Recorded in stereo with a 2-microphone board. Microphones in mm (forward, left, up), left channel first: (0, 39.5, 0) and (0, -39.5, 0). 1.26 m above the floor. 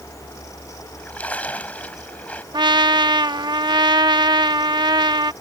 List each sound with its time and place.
0.8 s a splash: 20° left (ahead or behind)
2.5 s a trumpet: 70° right (ahead or behind)